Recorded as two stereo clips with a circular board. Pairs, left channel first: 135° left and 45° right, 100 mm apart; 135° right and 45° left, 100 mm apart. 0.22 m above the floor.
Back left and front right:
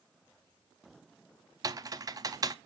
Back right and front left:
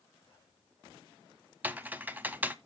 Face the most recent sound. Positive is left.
turn(degrees=-20)